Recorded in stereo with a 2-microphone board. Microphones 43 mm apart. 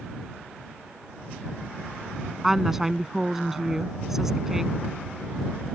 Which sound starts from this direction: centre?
A woman speaking, at 2.4 s.